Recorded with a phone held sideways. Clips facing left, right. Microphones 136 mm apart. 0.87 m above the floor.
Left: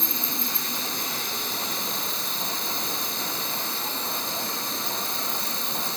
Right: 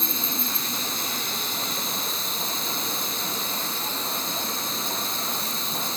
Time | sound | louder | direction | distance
0.0 | an insect | right 1 dB | 60° left (ahead or behind) | ?